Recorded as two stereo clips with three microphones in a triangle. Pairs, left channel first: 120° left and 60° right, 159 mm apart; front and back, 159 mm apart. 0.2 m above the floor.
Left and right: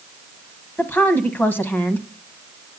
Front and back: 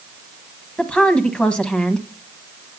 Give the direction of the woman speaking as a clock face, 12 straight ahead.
10 o'clock.